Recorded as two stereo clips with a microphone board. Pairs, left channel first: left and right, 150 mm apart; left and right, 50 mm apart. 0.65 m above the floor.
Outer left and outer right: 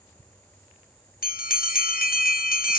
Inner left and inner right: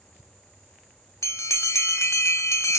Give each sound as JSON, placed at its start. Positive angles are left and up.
{"t": 1.2, "sound": "a bell", "side_deg": 75, "distance_m": 0.7}